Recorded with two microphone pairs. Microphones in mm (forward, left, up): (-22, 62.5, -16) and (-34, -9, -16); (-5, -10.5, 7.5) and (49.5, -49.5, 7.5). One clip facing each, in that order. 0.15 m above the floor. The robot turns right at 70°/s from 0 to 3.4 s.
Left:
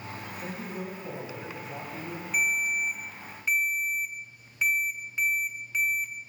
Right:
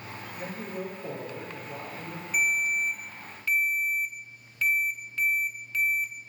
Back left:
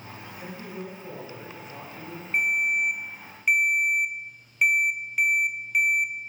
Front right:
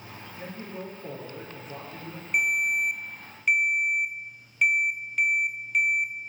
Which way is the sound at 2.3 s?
5° right.